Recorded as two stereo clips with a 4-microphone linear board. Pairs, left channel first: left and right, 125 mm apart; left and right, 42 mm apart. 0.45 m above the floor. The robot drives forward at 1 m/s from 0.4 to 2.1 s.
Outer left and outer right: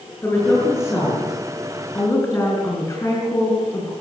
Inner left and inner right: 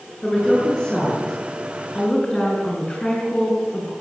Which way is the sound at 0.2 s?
20° left (ahead or behind).